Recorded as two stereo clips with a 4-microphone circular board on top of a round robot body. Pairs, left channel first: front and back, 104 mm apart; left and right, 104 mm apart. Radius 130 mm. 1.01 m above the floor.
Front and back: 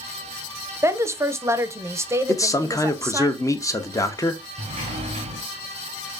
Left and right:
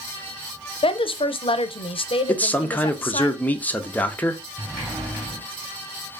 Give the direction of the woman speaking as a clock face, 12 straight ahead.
8 o'clock.